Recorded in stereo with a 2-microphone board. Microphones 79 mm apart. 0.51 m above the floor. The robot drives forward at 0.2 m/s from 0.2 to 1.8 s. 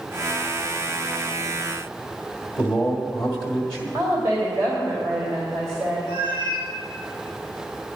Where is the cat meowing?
30° right (ahead or behind), 4 m.